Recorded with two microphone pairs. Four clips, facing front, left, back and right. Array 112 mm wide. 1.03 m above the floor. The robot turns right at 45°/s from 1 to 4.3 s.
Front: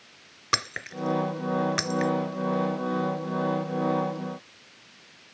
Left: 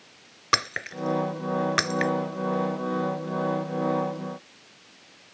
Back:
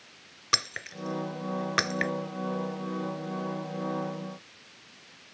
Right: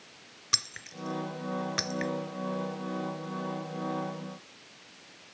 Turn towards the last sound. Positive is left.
turn(degrees=-125)